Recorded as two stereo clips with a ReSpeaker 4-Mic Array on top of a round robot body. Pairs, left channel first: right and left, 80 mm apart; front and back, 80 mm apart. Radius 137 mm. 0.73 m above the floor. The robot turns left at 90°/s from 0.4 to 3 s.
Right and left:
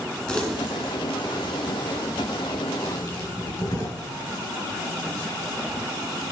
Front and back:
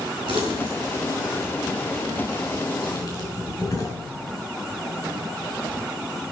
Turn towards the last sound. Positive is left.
turn(degrees=-50)